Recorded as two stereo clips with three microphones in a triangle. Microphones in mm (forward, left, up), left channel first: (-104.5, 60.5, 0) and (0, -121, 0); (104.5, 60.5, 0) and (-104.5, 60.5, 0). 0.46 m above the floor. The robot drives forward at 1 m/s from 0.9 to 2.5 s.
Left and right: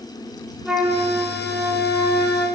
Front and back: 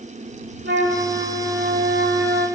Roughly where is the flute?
Behind right.